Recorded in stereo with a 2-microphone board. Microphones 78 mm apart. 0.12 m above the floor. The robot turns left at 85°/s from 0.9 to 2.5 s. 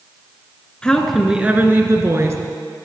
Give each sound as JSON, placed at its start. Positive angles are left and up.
{"t": 0.8, "sound": "a woman speaking", "azimuth_deg": 20, "distance_m": 1.3}